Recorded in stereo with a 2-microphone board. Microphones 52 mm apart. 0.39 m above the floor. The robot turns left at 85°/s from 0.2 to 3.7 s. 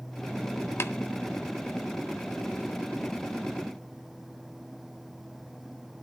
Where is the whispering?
I don't hear whispering.